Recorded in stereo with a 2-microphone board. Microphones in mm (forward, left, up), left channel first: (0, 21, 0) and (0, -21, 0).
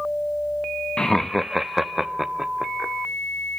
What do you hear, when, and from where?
1.0 s laughter: 15° left (ahead or behind), 0.5 m; by 2.9 s 15° right (ahead or behind), 1.6 m